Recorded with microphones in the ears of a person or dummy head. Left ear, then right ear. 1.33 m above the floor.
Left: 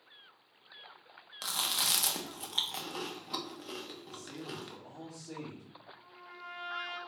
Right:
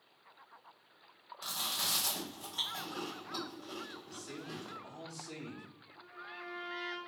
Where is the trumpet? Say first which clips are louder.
Right 6 dB; 10° right (ahead or behind), 1.0 m.